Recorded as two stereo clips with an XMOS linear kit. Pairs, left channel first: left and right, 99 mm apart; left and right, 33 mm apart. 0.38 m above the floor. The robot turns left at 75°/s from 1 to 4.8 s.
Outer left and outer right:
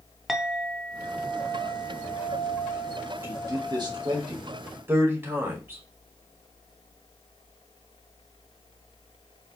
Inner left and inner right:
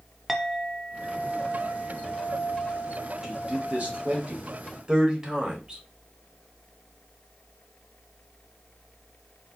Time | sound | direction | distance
0.3 | a clink | centre (ahead or behind) | 0.6 m
3.2 | a man speaking | 25° right (ahead or behind) | 1.6 m